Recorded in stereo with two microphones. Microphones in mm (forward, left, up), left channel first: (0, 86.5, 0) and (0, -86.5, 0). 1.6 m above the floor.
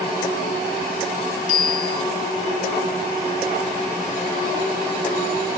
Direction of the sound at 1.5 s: 50° left (ahead or behind).